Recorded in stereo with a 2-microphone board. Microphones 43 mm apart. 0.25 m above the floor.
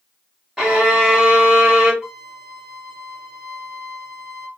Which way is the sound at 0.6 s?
10° right (ahead or behind).